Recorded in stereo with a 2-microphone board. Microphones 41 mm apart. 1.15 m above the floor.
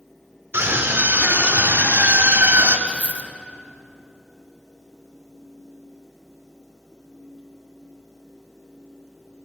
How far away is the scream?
About 4.5 m.